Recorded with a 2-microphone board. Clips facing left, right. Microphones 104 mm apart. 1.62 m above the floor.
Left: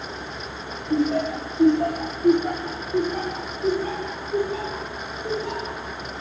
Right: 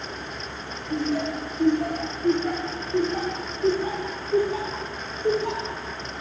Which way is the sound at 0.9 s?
55° left (ahead or behind).